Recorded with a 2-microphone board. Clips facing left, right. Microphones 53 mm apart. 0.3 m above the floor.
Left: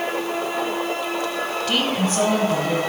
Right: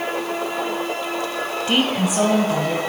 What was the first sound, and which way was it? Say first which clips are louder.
A woman speaking: right 3 dB; 25° right (ahead or behind).